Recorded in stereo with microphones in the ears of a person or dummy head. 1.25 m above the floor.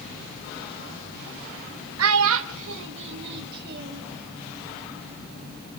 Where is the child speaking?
70° right (ahead or behind), 1.0 m; by 4.0 s 55° right (ahead or behind), 1.6 m.